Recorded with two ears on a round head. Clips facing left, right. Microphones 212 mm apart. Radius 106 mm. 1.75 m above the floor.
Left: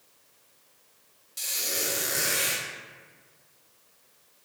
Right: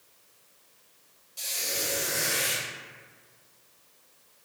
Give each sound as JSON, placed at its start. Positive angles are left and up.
{"t": 1.4, "sound": "a squeak", "side_deg": 25, "distance_m": 0.9}